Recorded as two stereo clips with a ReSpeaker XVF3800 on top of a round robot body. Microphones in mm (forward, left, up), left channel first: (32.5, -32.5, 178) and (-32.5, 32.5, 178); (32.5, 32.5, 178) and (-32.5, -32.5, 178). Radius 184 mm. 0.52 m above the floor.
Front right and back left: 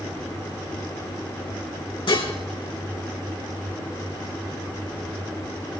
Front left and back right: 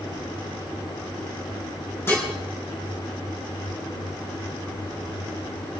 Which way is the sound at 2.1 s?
20° right.